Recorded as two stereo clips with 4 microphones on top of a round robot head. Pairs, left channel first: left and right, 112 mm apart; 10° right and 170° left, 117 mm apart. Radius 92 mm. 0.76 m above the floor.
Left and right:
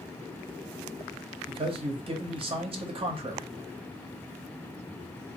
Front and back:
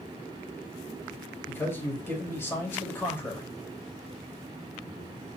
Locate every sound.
1.5 s a man speaking: 75° right, 0.9 m